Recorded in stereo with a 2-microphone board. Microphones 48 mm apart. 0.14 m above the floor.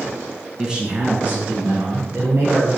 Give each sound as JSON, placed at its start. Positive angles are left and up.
{"t": 0.6, "sound": "a man speaking", "side_deg": -10, "distance_m": 1.3}